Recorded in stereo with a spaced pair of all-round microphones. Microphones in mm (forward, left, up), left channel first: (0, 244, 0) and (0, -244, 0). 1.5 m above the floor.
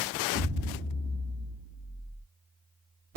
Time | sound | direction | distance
0.3 | an explosion | 55° right (ahead or behind) | 2.5 m